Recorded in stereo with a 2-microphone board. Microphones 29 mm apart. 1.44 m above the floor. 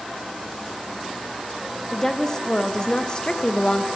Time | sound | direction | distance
1.9 | a woman speaking | 20° left (ahead or behind) | 1.9 m